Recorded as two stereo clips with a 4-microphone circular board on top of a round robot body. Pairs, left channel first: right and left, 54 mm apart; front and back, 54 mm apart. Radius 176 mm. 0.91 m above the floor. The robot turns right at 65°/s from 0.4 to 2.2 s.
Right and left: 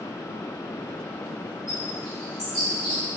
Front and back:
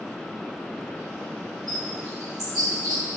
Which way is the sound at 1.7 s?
155° left.